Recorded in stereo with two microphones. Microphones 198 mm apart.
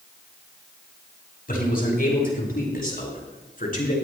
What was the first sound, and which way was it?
A man speaking, 45° left (ahead or behind).